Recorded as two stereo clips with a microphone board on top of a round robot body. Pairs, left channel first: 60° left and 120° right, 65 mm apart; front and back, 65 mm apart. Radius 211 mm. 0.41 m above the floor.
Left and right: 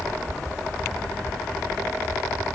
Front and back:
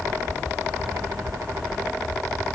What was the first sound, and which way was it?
Only background noise.